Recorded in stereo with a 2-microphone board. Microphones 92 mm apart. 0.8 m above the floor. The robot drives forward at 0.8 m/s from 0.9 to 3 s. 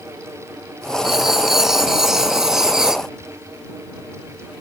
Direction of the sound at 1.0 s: 5° right (ahead or behind).